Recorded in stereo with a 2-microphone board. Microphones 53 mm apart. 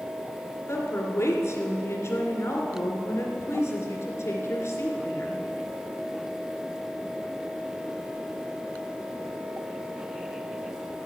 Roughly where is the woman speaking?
Left.